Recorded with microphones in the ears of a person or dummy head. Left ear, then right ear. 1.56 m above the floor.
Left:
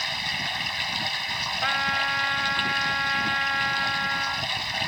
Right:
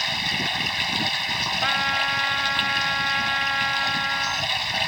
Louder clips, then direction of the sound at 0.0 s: Right 3 dB; 10° right (ahead or behind).